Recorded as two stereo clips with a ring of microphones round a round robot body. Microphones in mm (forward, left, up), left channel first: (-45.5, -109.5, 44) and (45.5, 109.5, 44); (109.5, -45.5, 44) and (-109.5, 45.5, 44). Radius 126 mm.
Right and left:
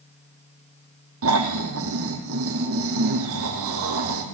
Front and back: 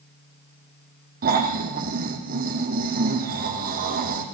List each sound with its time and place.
1.2 s snoring: 100° left, 5.5 m